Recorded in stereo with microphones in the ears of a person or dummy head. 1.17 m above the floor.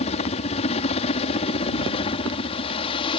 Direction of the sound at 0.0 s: 35° left (ahead or behind).